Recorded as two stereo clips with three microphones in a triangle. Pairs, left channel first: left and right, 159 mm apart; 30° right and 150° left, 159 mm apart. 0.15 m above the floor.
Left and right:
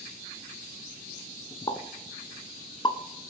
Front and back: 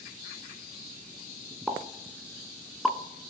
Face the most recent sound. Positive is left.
turn(degrees=60)